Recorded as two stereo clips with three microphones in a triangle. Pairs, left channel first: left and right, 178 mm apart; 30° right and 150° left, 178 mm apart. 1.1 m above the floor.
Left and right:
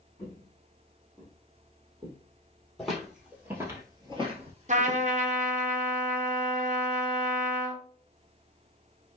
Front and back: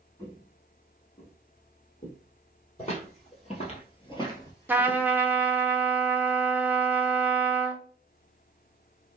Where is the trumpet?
130° right, 0.6 m.